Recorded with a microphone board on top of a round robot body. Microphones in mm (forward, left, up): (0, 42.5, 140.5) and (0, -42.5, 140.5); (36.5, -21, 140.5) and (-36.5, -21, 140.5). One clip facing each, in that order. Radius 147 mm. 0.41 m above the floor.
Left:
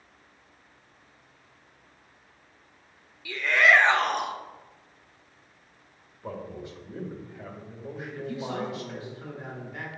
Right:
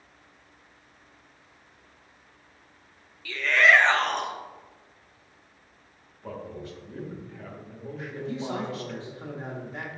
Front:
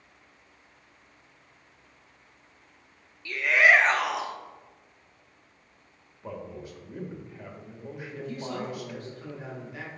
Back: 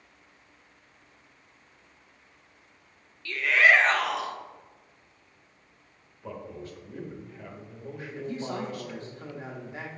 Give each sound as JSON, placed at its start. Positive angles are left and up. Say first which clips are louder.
{"t": 3.2, "sound": "a shout", "louder": "right 1 dB, even", "azimuth_deg": 40, "distance_m": 0.8}
{"t": 6.2, "sound": "a man speaking", "louder": "even, front 1 dB", "azimuth_deg": 50, "distance_m": 1.2}
{"t": 8.1, "sound": "a man speaking", "louder": "right 2 dB, back 2 dB", "azimuth_deg": -135, "distance_m": 1.2}